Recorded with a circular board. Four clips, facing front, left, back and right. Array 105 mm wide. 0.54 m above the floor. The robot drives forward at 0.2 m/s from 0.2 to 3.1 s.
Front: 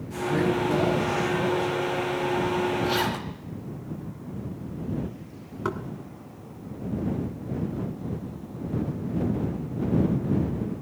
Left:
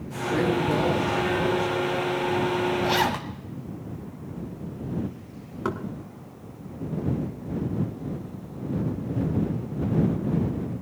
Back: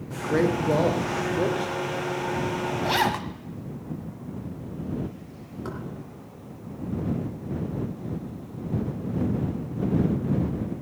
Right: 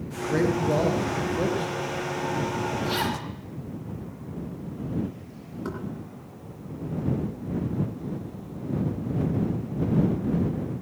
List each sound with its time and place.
0.1 s a man speaking: 165° right, 1.9 m
2.8 s a zipper: 145° left, 1.4 m; by 3.3 s 150° left, 1.4 m
5.7 s knocking: 60° left, 1.4 m